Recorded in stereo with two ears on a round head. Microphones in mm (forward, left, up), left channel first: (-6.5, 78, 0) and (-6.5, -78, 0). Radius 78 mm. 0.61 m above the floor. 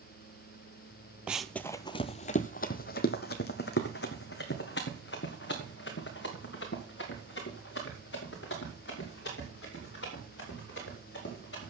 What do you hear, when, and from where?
1.3 s running footsteps: 10° right (ahead or behind), 0.6 m; by 11.7 s 65° left (ahead or behind), 6.5 m